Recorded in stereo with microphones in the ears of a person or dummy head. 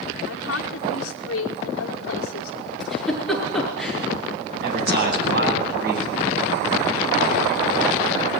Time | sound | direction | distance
0.3 | a woman speaking | 85° left | 1.9 m
2.8 | a giggle | centre (ahead or behind) | 6.5 m
4.6 | a man speaking | 60° right (ahead or behind) | 9.5 m